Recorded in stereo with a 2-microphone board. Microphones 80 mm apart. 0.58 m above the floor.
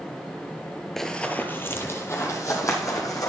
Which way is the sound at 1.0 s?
5° left (ahead or behind).